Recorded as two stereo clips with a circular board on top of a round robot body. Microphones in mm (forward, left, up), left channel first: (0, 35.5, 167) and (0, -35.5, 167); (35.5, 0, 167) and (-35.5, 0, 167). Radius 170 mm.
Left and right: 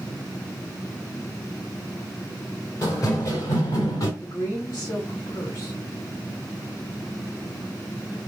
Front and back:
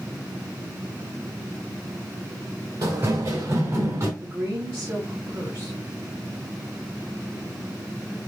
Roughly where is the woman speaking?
Behind left.